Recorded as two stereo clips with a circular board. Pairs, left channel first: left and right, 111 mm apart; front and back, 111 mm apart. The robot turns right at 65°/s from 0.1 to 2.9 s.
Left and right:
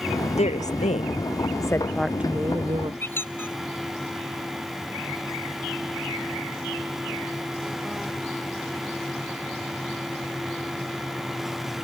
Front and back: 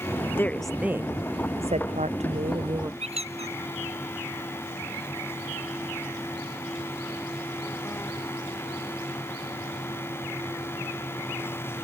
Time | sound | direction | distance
0.4 | a woman speaking | 70° left | ?
3.0 | a squeak | 160° left | ?